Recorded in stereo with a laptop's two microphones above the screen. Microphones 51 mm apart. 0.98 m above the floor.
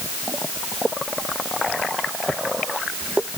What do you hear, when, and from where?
Only background noise.